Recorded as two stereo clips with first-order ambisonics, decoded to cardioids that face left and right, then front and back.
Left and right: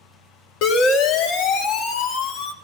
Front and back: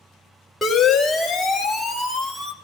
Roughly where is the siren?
Left.